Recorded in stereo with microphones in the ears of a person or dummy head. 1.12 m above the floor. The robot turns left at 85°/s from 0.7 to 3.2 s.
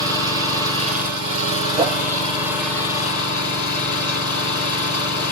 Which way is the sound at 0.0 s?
20° right.